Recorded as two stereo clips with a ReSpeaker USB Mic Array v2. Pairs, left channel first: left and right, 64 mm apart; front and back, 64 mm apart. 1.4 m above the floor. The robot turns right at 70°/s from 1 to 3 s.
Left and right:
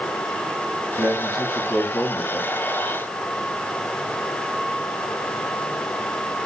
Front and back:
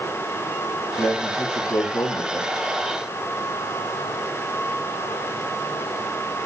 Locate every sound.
1.0 s a man speaking: 60° right, 2.5 m; by 2.6 s 50° left, 2.5 m